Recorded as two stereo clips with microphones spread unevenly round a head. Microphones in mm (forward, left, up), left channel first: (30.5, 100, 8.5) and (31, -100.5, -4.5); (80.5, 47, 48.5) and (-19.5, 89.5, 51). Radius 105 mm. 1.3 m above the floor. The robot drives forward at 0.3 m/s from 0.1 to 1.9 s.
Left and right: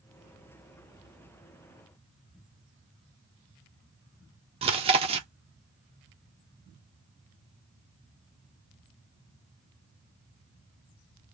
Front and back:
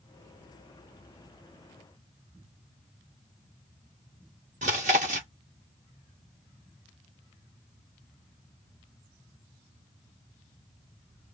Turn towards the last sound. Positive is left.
turn(degrees=-155)